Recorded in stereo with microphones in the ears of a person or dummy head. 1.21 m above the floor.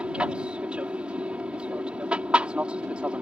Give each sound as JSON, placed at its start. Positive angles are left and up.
{"t": 0.0, "sound": "an aircraft", "side_deg": -10}